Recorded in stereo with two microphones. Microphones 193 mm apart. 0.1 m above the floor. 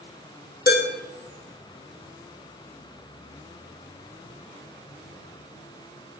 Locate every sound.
0.7 s dishes clattering: 50° left (ahead or behind), 2.5 m